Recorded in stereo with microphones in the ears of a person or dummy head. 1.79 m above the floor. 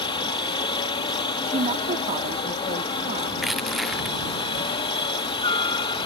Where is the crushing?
5° right (ahead or behind).